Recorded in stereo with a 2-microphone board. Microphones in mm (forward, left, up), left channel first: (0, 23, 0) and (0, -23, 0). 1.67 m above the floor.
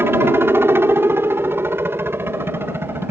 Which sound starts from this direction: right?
A helicopter, at 0.0 s.